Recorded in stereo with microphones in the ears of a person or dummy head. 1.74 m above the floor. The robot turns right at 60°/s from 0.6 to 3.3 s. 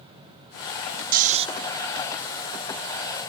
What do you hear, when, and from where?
1.1 s snoring: 45° right (ahead or behind), 0.6 m; by 1.5 s 25° right (ahead or behind), 0.6 m